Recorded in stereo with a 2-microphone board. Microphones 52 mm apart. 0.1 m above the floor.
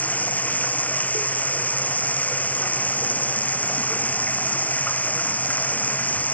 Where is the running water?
30° left (ahead or behind).